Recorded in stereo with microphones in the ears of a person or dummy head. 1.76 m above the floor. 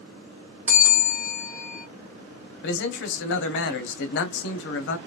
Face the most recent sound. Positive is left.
turn(degrees=70)  # may be behind; listen again after turning